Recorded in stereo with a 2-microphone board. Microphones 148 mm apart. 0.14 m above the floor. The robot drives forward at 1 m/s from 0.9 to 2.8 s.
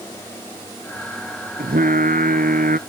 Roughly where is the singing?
Right.